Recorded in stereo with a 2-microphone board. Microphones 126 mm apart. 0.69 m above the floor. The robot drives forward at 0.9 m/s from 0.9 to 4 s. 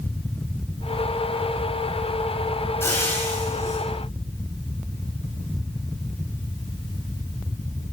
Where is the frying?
15° left (ahead or behind), 7.5 m; by 3.8 s 20° left (ahead or behind), 6.5 m.